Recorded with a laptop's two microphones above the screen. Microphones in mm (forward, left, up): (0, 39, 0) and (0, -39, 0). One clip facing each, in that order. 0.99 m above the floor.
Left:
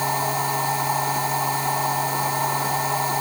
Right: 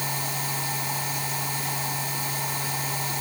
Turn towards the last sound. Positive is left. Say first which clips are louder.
# left 9 dB
turn(degrees=40)  # may be behind; listen again after turning